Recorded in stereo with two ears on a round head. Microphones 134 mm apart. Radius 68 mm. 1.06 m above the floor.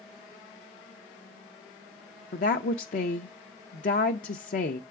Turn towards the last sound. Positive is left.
turn(degrees=55)  # may be behind; listen again after turning